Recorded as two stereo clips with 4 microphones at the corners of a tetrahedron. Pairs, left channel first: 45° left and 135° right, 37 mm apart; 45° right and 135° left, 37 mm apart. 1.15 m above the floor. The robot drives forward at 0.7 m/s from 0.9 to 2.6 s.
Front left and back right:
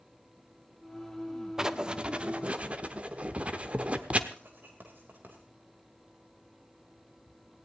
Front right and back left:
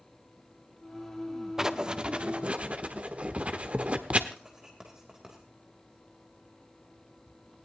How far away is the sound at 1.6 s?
About 0.6 m.